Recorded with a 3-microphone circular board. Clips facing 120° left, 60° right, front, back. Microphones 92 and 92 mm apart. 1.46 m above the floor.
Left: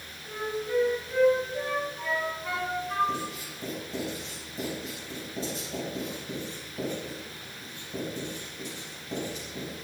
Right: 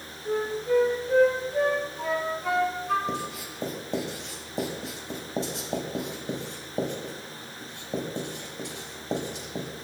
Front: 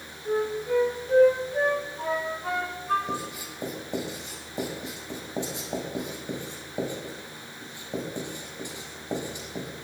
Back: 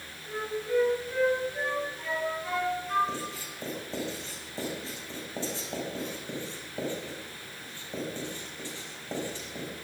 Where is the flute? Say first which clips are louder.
Right 6 dB, front 6 dB; 40° right, 5 m.